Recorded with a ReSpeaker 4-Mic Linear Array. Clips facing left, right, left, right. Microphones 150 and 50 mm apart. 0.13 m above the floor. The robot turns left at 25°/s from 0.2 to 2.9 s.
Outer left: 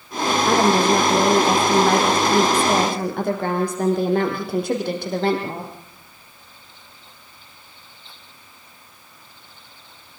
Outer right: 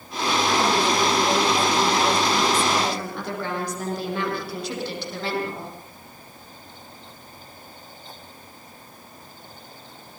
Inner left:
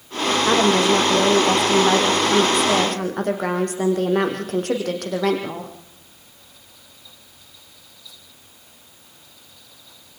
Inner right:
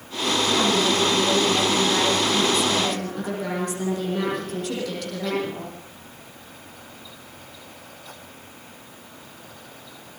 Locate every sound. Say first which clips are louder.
0.5 s a woman speaking: outer left 6 dB, inner left 5 dB; 115° left, 6.5 m; by 5.7 s 55° left, 6.5 m